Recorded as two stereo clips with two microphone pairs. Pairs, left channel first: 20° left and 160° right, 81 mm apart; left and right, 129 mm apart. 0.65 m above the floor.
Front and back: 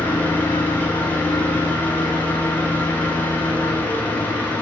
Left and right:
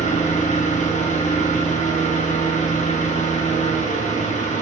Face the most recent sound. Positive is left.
turn(degrees=90)